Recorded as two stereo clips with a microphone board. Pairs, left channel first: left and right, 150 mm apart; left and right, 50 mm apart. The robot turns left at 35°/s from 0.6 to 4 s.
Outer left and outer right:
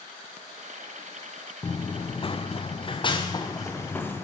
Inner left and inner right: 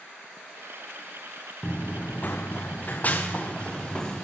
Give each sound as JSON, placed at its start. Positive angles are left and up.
{"t": 1.6, "sound": "running footsteps", "side_deg": 25, "distance_m": 0.7}